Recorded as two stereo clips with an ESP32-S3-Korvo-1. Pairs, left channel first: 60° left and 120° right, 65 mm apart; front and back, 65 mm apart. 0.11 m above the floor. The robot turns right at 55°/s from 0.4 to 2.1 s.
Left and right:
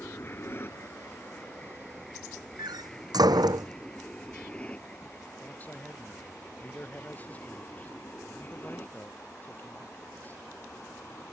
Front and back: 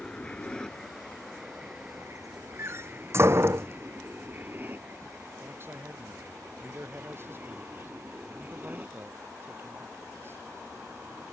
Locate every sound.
0.0 s an aircraft: 70° left; by 11.3 s 115° left
2.6 s a door slam: 130° right
5.4 s a man speaking: 125° left